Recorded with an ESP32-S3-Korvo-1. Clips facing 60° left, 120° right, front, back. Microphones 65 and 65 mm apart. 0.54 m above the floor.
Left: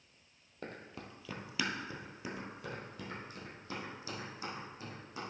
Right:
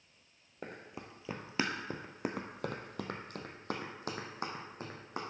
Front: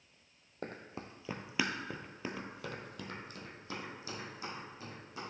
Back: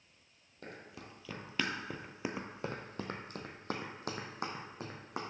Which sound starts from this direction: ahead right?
Running footsteps, at 0.6 s.